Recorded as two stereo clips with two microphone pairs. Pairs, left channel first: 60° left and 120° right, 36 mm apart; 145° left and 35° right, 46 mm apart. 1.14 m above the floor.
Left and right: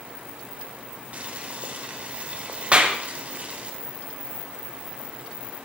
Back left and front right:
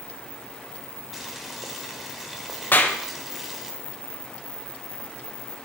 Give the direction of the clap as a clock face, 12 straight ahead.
6 o'clock.